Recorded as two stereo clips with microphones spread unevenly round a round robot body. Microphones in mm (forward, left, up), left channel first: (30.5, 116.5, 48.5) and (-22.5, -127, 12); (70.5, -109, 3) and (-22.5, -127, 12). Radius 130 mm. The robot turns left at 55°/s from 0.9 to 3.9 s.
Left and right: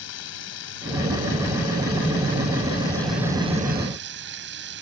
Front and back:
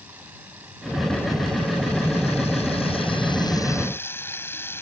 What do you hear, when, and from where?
0.0 s running water: 110° left; by 4.8 s 55° right